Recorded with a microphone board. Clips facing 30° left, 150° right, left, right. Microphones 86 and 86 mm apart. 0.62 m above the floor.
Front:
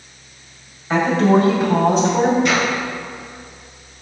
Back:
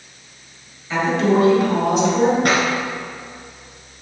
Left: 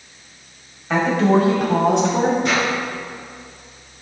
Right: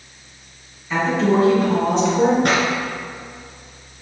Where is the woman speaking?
70° left, 3.5 m; by 2.3 s 80° left, 5 m.